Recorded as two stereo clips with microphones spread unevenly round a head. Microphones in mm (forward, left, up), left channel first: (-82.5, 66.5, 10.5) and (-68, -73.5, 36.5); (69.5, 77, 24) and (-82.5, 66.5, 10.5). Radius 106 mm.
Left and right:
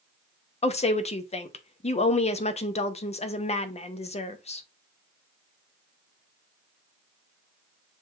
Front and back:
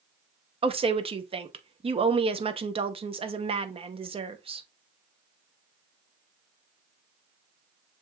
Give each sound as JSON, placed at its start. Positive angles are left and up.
{"t": 0.6, "sound": "a woman speaking", "azimuth_deg": 135, "distance_m": 0.9}